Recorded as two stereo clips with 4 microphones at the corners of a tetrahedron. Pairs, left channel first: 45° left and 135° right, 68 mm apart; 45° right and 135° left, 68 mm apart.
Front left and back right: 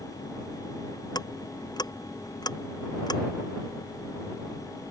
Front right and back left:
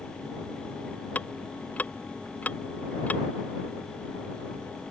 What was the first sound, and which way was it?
Ticking, 25° left.